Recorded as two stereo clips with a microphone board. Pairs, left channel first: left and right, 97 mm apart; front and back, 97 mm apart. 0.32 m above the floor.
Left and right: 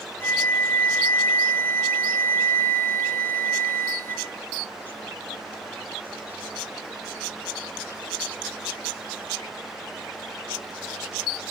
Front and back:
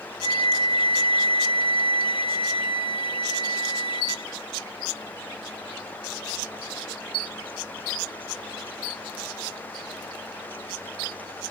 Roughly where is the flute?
Ahead left.